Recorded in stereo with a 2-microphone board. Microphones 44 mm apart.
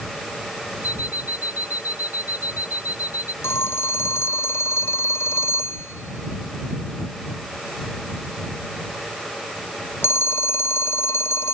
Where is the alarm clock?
40° right (ahead or behind).